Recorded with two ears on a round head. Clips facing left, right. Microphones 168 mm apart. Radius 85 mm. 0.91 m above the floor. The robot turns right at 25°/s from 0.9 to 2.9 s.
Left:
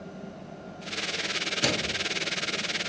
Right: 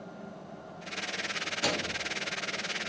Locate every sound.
1.6 s a microwave: 30° left (ahead or behind), 0.8 m; by 2.0 s 20° left (ahead or behind), 0.8 m